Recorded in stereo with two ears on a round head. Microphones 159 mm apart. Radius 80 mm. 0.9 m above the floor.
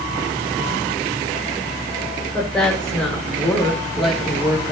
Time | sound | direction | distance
2.3 | a woman speaking | 5° left (ahead or behind) | 3.5 m